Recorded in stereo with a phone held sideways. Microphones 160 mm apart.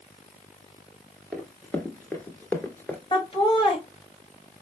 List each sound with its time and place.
1.3 s running footsteps: 10° left (ahead or behind), 1.1 m; by 3.0 s 15° left (ahead or behind), 1.2 m
3.1 s laughter: 35° left (ahead or behind), 1.6 m